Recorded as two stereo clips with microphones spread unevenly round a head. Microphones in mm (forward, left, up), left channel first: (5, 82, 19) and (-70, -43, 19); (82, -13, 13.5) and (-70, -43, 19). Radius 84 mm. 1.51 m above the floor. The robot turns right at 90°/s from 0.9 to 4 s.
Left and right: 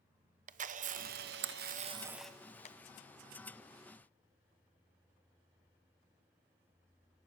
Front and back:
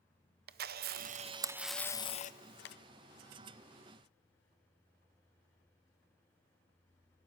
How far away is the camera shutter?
About 0.6 m.